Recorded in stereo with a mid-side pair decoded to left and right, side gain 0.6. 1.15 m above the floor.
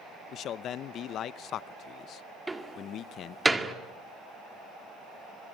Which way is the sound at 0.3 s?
55° left.